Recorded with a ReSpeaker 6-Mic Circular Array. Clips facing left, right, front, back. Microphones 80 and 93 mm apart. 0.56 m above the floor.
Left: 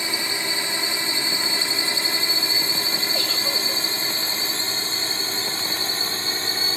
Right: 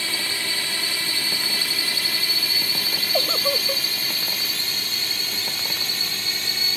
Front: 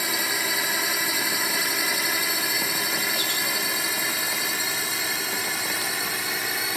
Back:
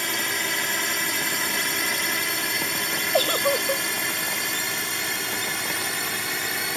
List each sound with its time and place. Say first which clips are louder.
0.0 s a drone: left 2 dB, even; 75° left; by 6.8 s 85° left
3.1 s a giggle: right 4 dB, back 8 dB; 145° right